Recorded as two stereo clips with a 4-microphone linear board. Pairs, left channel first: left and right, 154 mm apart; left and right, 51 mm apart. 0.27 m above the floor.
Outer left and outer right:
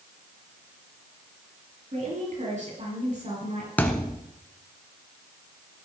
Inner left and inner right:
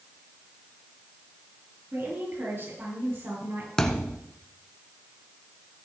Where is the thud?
10° left (ahead or behind), 1.2 m.